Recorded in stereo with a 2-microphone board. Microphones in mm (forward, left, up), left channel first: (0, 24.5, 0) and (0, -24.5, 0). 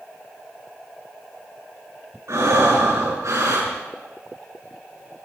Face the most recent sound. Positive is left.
turn(degrees=-80)